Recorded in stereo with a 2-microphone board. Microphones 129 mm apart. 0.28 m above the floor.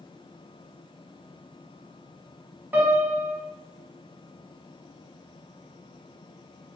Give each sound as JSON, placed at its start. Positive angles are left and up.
{"t": 2.7, "sound": "a piano", "side_deg": -15, "distance_m": 0.6}